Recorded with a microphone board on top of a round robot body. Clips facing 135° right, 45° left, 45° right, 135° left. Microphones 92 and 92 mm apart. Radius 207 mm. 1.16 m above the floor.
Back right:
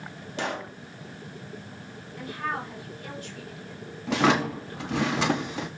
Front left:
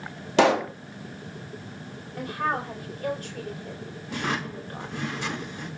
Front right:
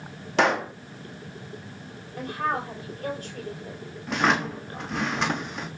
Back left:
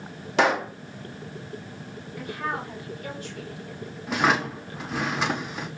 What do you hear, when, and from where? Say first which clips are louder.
0.4 s a pop: front left 12 dB, even; 45° left, 0.7 m
2.2 s a woman speaking: front left 4 dB, front right 3 dB; 5° left, 4.5 m
4.1 s a drawer: back right 8 dB, back left 1 dB; 140° right, 1.3 m